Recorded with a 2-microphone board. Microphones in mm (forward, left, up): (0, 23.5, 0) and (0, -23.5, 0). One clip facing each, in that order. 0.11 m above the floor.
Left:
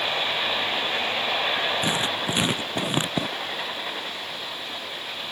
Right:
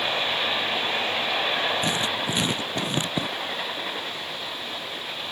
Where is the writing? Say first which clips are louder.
Even; 20° left (ahead or behind).